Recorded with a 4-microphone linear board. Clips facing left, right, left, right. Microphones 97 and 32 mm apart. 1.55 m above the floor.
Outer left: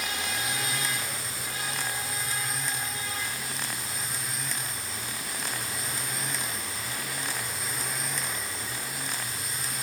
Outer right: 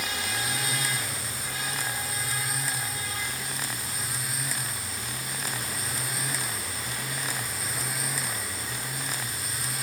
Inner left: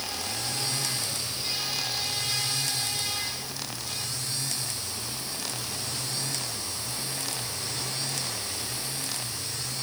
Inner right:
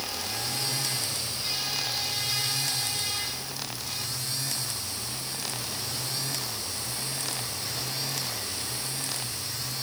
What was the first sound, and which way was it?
Only background noise.